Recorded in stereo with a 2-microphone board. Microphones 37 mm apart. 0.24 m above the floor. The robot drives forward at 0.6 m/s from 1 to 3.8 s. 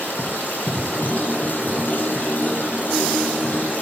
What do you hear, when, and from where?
0.0 s running water: 60° left (ahead or behind), 3 m